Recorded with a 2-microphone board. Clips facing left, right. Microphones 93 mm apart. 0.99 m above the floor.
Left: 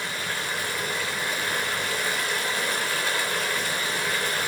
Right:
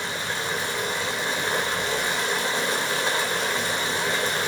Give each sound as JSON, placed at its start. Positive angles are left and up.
{"t": 0.0, "sound": "running water", "side_deg": -25, "distance_m": 4.0}